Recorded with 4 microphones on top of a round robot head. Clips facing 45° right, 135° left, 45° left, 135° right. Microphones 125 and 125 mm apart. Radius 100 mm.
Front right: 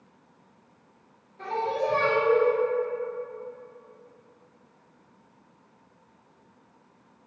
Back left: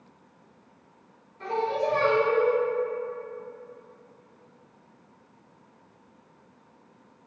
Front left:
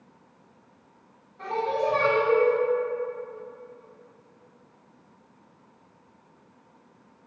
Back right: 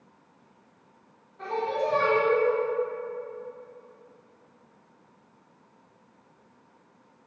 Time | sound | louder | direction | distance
1.4 | singing | back left 1 dB, front left 2 dB | 45° right | 1.7 m